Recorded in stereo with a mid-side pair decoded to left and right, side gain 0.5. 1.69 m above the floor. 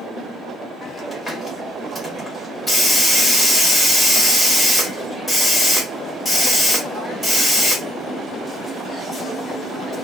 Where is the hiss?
15° left, 1.4 m.